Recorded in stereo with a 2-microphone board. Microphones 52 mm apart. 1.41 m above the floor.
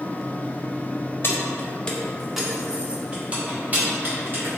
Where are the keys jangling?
45° left (ahead or behind), 0.6 m; by 4.6 s 40° right (ahead or behind), 1.7 m.